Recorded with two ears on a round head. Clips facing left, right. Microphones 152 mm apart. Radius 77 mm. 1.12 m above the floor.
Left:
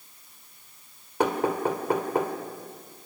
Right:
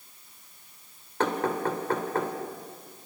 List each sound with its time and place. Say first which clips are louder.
1.2 s knocking: left 2 dB; 10° left (ahead or behind), 2.5 m